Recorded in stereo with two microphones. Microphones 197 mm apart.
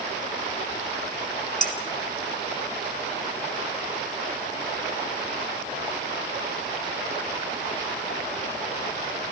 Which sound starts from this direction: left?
Dishes clattering, at 1.6 s.